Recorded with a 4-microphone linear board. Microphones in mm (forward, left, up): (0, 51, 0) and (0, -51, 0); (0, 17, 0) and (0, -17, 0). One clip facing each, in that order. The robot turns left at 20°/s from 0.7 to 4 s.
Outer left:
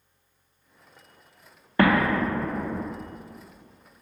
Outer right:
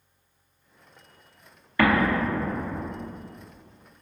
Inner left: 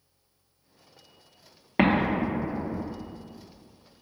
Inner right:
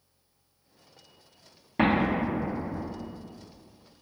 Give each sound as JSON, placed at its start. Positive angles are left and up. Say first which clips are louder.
{"t": 1.8, "sound": "an explosion", "louder": "outer left 1 dB, inner left 1 dB", "side_deg": 35, "distance_m": 0.7}